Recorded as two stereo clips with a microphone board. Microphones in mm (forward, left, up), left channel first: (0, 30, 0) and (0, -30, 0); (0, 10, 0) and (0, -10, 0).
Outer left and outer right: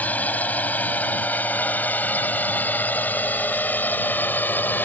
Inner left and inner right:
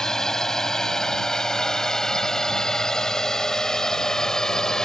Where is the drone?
25° left (ahead or behind); by 4.8 s 30° left (ahead or behind).